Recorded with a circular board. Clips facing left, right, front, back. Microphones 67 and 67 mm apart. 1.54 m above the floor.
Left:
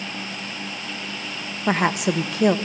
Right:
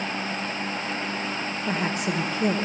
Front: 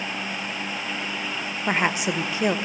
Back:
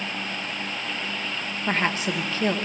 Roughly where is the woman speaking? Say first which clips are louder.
Left 7 dB, front 2 dB; left.